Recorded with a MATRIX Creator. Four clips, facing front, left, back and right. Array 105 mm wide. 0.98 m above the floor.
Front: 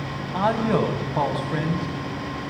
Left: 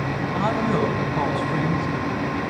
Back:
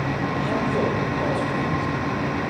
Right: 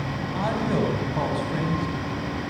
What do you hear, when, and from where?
0.3 s a man speaking: 5° right, 6.5 m